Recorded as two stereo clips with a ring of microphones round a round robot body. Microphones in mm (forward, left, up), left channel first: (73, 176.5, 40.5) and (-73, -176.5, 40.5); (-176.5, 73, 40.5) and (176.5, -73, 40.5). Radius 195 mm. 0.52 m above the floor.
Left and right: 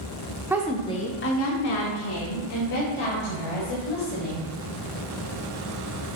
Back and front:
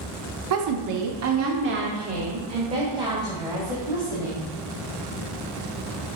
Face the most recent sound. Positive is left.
turn(degrees=65)